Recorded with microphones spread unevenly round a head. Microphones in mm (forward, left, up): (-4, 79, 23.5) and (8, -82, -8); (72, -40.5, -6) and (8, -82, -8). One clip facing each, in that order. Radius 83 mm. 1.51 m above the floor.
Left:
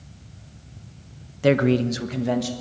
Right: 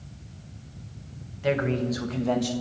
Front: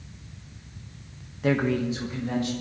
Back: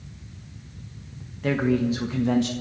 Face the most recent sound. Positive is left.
turn(degrees=180)